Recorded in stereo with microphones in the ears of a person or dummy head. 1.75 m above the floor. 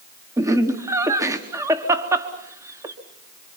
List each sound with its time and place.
0.4 s laughter: 10° right (ahead or behind), 1.2 m